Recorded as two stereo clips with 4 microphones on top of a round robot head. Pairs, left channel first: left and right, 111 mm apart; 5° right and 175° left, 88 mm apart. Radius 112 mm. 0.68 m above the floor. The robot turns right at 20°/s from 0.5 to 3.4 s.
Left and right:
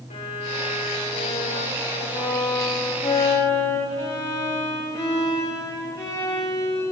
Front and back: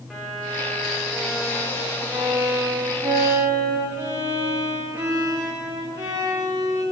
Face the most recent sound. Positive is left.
turn(degrees=145)